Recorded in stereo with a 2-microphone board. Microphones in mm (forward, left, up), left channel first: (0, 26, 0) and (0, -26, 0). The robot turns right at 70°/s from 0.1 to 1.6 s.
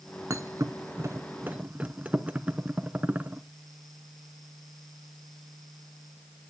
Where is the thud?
65° right (ahead or behind), 0.7 m; by 3.4 s 25° right (ahead or behind), 0.7 m.